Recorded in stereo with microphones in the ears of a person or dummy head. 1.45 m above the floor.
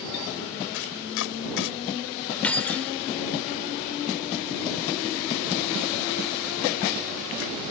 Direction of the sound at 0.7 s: 75° left (ahead or behind).